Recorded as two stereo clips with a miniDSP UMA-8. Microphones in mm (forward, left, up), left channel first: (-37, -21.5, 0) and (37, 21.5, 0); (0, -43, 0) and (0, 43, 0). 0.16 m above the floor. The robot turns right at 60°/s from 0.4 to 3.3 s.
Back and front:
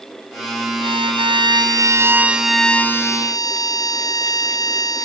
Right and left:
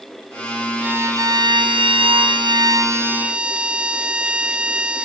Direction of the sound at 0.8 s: 20° left.